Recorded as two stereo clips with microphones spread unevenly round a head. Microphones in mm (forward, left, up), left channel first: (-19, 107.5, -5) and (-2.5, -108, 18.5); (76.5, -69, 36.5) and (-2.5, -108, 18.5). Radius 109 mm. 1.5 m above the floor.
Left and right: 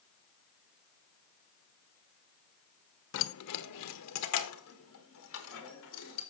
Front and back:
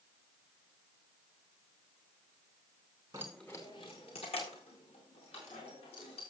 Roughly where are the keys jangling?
Behind left.